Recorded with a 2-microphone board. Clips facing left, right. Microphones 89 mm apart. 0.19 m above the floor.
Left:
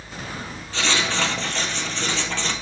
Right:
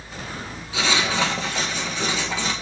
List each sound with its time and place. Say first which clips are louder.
0.7 s writing: right 1 dB; 10° right (ahead or behind), 1.0 m